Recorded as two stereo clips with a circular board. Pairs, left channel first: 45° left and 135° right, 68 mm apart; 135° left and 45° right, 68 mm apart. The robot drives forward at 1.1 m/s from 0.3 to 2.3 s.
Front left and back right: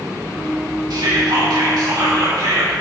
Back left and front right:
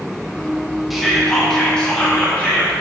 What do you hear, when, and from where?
0.9 s whispering: 135° right, 2.5 m; by 2.7 s 150° right, 3.5 m